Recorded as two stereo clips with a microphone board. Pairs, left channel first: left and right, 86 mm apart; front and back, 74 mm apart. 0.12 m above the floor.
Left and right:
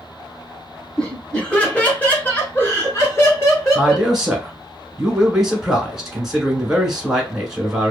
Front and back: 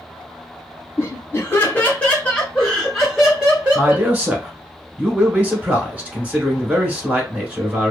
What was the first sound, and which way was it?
Laughter, 20° left.